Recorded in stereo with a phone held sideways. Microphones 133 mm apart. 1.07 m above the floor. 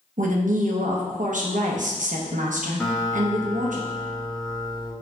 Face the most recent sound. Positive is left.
turn(degrees=5)  # may be behind; listen again after turning